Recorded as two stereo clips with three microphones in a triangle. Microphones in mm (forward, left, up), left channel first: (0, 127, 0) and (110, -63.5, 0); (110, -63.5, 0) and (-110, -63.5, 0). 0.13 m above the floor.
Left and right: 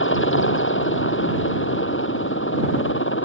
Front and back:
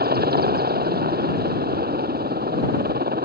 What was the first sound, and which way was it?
A helicopter, 140° left.